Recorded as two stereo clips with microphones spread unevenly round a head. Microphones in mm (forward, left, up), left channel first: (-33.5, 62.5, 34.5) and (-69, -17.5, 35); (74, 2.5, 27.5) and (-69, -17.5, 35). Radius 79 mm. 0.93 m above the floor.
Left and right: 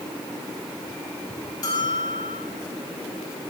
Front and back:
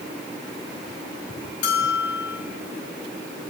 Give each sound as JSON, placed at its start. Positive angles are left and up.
{"t": 1.6, "sound": "a bell", "azimuth_deg": 0, "distance_m": 4.0}